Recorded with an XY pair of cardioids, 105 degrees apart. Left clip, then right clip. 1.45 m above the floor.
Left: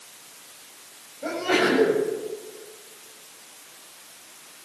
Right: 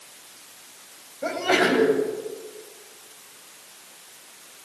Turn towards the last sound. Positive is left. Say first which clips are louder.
# right 1 dB
turn(degrees=-35)